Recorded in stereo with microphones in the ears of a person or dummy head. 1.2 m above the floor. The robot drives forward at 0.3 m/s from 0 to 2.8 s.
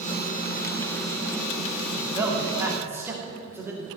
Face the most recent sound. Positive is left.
turn(degrees=-10)  # may be behind; listen again after turning